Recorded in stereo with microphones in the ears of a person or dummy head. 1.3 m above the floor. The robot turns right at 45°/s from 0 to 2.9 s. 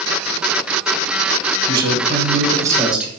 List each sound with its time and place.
1.7 s a man speaking: 65° right, 0.9 m; by 3.1 s 10° right, 0.9 m